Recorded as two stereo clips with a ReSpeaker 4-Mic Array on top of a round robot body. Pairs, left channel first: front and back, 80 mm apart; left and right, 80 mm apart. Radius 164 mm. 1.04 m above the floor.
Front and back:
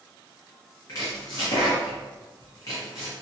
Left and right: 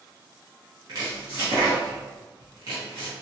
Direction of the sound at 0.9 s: 45° right.